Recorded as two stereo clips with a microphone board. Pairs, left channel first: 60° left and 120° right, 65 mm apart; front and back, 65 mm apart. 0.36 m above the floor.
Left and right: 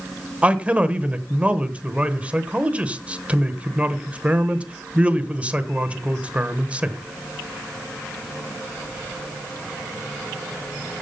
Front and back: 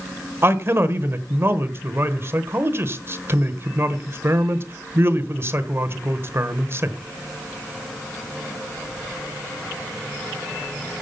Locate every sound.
0.4 s a man speaking: straight behind, 1.1 m